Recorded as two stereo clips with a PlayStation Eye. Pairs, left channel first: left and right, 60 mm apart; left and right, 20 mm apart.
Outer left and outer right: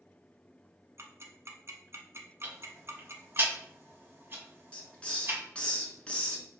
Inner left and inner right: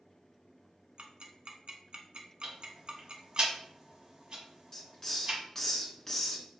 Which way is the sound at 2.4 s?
40° right (ahead or behind).